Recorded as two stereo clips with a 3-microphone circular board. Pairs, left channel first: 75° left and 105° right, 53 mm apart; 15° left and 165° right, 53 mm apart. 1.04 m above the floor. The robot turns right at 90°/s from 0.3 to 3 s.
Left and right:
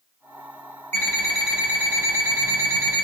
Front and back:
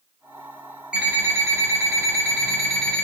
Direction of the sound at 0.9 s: 125° left.